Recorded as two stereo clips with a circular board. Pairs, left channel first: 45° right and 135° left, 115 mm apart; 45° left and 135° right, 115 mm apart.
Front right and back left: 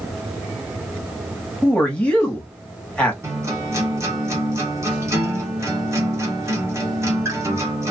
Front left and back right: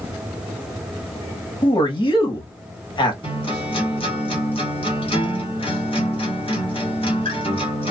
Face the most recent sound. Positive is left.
turn(degrees=75)